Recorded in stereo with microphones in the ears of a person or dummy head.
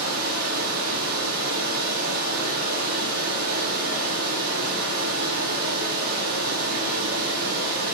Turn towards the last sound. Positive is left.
turn(degrees=-50)  # may be behind; listen again after turning